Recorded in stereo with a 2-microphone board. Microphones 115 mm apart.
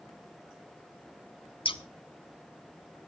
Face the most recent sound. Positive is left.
turn(degrees=45)  # may be behind; listen again after turning